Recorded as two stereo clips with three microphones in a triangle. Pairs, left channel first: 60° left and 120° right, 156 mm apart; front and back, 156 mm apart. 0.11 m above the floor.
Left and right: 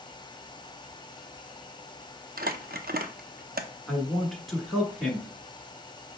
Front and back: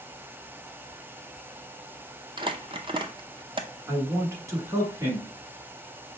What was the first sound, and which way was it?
Crumpling, 125° right.